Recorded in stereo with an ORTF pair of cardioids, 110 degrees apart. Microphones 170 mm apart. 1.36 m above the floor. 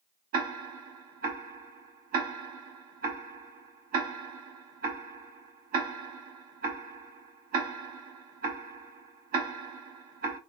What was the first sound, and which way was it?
Ticking, 60° right.